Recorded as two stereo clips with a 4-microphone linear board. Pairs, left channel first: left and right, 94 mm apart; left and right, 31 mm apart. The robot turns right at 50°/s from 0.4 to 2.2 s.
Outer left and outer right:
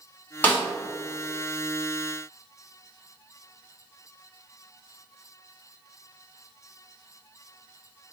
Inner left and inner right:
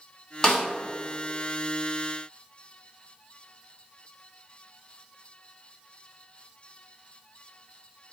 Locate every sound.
0.4 s a snare drum: 20° left (ahead or behind), 1.9 m; by 0.6 s 25° left (ahead or behind), 1.9 m